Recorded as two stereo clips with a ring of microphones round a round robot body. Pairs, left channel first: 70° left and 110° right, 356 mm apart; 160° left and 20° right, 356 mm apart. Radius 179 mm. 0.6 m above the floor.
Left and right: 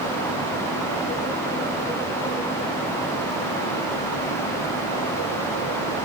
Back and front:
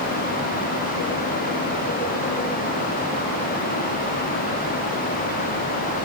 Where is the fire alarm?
I don't hear a fire alarm.